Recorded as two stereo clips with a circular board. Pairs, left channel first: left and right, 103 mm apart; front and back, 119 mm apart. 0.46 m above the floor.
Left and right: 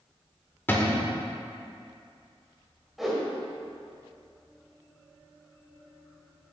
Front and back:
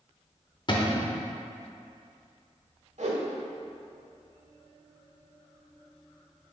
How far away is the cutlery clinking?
I don't hear cutlery clinking.